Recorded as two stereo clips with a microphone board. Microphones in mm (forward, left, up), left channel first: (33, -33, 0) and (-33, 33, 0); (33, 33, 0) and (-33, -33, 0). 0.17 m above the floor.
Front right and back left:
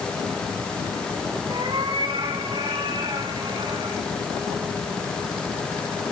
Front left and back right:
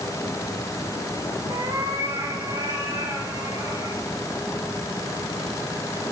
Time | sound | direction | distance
1.5 | a cat meowing | 175° left | 8 m